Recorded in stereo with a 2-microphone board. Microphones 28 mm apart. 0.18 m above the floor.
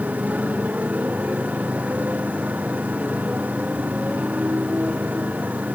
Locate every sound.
0.0 s a motorcycle: 70° right (ahead or behind)